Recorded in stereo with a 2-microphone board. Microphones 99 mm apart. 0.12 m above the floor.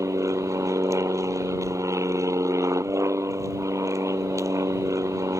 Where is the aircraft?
30° right (ahead or behind).